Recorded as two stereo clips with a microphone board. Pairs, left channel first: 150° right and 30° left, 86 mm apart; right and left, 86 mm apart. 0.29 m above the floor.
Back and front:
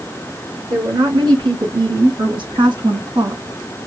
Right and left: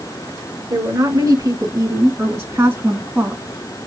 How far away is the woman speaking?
About 3 m.